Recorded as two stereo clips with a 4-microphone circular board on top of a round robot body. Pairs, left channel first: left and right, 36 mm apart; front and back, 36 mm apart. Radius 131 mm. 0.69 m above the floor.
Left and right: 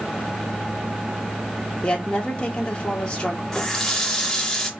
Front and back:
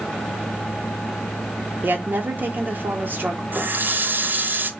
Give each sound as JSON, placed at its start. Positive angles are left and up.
{"t": 1.8, "sound": "a woman speaking", "azimuth_deg": 160, "distance_m": 0.9}
{"t": 3.5, "sound": "a running tap", "azimuth_deg": 165, "distance_m": 0.7}